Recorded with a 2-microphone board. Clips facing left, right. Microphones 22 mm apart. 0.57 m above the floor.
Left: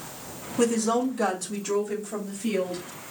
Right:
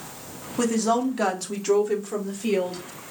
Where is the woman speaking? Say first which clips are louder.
Right 1 dB; 15° right (ahead or behind), 0.8 m; by 2.8 s 50° right (ahead or behind), 1.5 m.